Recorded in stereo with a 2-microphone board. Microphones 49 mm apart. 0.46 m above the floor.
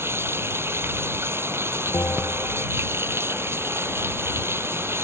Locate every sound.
0.0 s running water: 60° right (ahead or behind)
1.9 s a bell: 75° left (ahead or behind)